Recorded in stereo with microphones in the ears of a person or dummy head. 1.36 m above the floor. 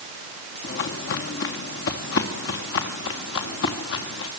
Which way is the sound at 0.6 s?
60° left (ahead or behind).